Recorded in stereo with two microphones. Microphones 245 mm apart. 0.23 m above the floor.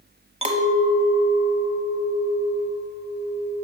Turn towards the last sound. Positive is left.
turn(degrees=-25)  # may be behind; listen again after turning